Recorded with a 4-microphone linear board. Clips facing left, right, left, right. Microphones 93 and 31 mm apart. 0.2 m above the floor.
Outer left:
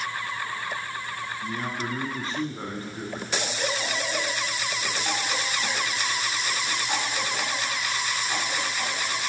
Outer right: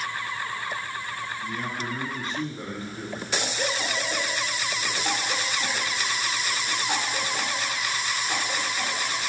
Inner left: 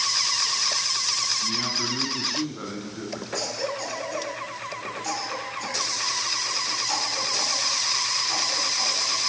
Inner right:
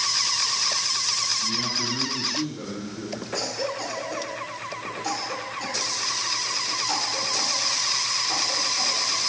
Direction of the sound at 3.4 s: 15° right (ahead or behind).